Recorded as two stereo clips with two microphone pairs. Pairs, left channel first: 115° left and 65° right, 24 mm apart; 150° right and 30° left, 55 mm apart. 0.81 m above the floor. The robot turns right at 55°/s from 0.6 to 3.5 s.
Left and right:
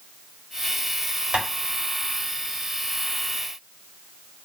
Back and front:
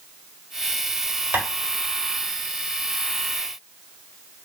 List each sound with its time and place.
1.3 s tapping: 10° right, 1.5 m; by 1.4 s 5° right, 1.5 m